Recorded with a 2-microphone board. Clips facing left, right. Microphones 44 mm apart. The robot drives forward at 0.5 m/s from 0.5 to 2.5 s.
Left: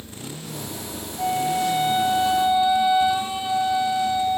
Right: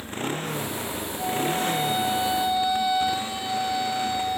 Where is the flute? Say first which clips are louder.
Left 4 dB; 20° left (ahead or behind); by 4.4 s 15° left (ahead or behind).